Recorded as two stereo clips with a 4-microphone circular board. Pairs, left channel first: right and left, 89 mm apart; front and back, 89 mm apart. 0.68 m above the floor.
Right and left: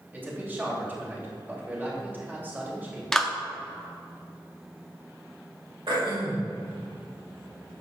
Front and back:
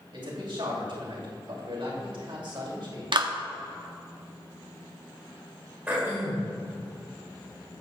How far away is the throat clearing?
About 2.5 m.